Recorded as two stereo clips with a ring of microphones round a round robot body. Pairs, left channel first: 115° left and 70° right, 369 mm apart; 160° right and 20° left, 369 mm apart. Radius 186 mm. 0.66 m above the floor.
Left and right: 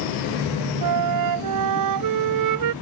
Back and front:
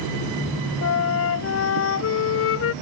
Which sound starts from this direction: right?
A flute, at 0.8 s.